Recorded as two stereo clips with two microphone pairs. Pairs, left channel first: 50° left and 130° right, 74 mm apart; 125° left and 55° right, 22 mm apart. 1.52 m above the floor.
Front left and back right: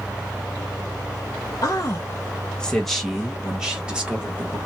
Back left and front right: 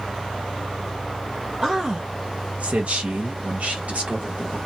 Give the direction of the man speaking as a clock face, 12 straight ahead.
11 o'clock.